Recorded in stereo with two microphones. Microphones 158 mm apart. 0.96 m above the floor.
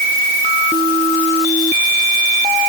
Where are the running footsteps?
I don't hear running footsteps.